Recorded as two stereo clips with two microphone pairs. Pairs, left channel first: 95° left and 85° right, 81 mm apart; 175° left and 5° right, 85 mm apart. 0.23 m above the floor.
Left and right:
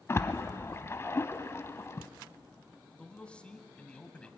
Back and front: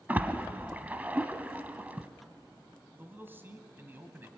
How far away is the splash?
About 1.0 m.